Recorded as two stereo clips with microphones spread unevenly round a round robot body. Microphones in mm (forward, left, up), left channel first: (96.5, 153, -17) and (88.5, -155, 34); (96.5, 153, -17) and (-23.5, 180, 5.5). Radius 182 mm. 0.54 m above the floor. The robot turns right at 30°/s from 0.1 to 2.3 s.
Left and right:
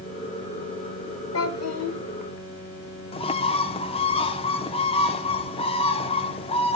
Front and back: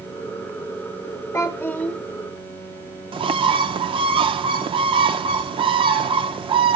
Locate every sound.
1.3 s a child speaking: 60° left, 1.1 m; by 2.0 s 80° left, 1.1 m
3.1 s a bird: 140° left, 0.5 m